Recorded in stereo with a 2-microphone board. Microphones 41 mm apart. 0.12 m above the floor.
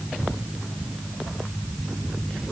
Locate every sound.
Only background noise.